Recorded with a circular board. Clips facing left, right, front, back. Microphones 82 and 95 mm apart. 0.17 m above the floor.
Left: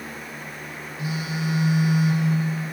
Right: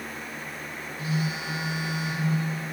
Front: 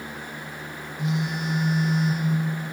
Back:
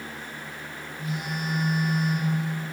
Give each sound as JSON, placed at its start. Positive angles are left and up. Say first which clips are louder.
{"t": 1.0, "sound": "a phone buzzing", "louder": "left 2 dB, front 5 dB", "azimuth_deg": 15, "distance_m": 2.0}